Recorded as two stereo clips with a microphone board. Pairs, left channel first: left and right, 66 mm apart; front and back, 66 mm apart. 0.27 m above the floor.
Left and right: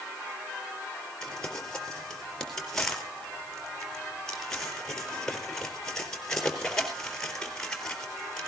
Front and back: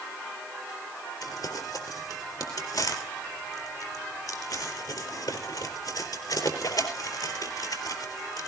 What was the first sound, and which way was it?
Crumpling, 10° left.